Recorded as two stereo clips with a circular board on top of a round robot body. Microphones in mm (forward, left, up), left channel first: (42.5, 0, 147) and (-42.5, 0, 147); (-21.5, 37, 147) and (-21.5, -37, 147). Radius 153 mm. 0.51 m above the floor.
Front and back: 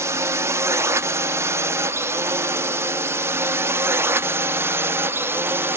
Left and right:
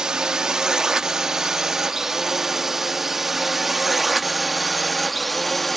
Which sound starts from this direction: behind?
A drone, at 0.0 s.